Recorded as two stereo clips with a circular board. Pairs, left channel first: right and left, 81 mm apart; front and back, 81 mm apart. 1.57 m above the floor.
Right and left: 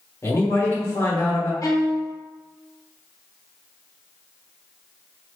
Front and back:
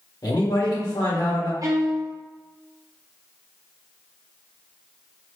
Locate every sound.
0.2 s a man speaking: 35° right, 1.4 m
1.6 s a violin: 135° right, 0.7 m